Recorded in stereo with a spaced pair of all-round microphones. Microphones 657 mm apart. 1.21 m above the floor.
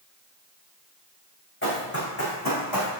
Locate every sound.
1.6 s running footsteps: 20° left (ahead or behind), 4 m; by 2.9 s 30° left (ahead or behind), 3 m